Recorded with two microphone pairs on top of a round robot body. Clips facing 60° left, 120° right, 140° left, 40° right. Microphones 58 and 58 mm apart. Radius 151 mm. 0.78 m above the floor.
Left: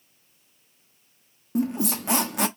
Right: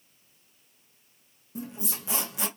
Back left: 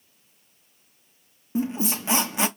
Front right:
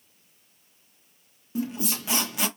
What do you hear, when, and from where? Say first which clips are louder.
1.6 s a squeak: left 13 dB, back left 4 dB; 85° left, 0.9 m